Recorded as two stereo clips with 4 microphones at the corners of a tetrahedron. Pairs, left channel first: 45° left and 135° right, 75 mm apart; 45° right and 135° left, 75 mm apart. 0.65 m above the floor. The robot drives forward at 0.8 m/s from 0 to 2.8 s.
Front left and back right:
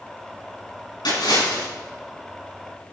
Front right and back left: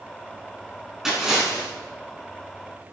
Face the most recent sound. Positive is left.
turn(degrees=60)